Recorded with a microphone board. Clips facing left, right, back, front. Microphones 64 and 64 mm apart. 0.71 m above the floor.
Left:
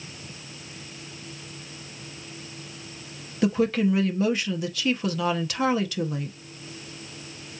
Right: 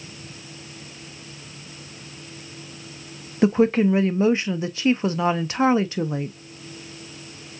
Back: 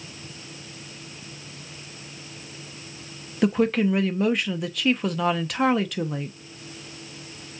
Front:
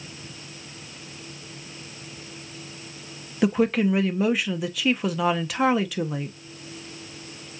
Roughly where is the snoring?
I don't hear snoring.